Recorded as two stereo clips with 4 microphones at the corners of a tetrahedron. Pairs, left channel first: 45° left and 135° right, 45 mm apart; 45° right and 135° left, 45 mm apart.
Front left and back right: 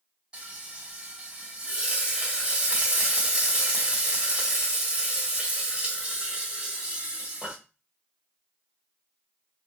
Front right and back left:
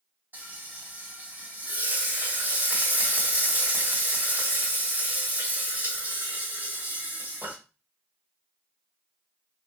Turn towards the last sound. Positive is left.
turn(degrees=160)